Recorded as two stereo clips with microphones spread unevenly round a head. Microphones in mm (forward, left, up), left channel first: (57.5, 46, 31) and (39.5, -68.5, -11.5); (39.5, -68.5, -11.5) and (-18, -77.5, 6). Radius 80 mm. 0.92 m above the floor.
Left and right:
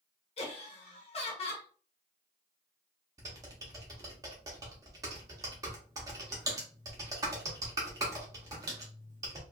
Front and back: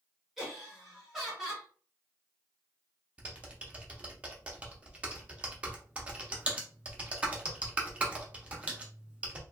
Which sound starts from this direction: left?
Laughter, at 0.4 s.